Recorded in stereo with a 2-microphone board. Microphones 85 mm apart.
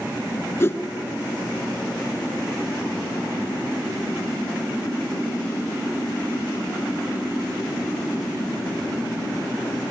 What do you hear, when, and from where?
0.6 s a whoosh: 30° left (ahead or behind), 1.1 m